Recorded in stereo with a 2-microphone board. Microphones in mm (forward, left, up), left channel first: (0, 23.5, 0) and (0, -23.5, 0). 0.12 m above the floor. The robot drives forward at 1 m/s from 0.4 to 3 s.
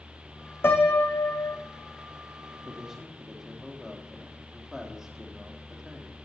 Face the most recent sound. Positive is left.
turn(degrees=-10)  # may be behind; listen again after turning